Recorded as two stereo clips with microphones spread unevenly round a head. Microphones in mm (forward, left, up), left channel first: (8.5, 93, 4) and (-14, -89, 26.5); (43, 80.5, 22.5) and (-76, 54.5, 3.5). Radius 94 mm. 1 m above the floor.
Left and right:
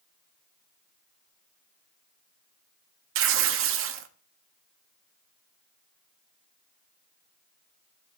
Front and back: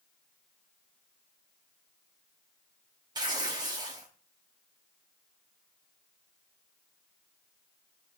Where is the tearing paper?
95° right, 0.7 m.